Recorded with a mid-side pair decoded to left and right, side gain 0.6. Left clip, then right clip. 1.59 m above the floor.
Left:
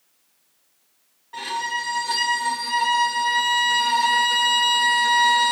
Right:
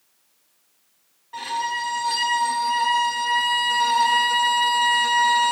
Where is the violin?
5° left, 1.9 m.